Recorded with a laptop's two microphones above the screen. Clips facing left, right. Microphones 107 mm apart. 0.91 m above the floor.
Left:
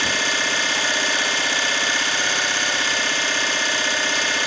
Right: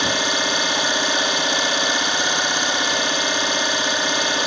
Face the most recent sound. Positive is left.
turn(degrees=-20)  # may be behind; listen again after turning